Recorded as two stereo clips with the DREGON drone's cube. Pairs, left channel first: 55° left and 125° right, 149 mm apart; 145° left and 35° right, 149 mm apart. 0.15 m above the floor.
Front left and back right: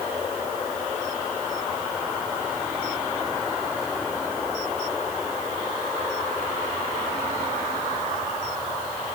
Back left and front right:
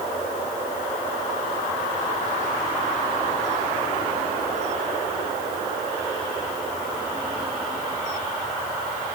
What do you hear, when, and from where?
Only background noise.